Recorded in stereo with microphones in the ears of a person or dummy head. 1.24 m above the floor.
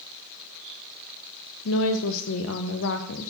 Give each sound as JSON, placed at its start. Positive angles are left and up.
{"t": 1.6, "sound": "a woman speaking", "side_deg": 70, "distance_m": 0.8}